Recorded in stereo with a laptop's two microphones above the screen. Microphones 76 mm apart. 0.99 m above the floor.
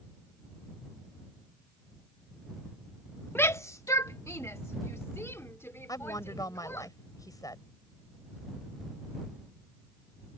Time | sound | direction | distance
3.4 | a shout | 25° left (ahead or behind) | ?
5.9 | a woman speaking | 50° left (ahead or behind) | ?